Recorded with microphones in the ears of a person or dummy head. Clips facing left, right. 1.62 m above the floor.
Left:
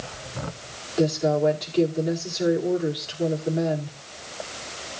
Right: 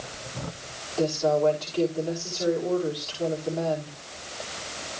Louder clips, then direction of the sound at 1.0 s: Left 2 dB; 20° left (ahead or behind).